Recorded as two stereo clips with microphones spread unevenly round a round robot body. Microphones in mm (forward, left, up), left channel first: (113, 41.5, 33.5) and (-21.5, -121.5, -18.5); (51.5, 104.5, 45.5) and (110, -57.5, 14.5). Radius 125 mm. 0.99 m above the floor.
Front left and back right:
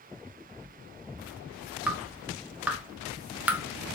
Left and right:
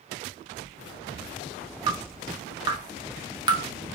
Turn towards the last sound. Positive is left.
turn(degrees=-75)